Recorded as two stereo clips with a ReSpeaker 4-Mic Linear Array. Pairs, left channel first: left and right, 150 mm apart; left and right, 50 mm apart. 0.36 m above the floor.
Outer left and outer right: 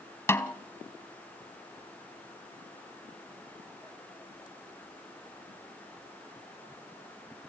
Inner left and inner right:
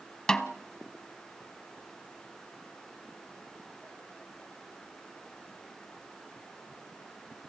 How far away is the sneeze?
No sneeze in this recording.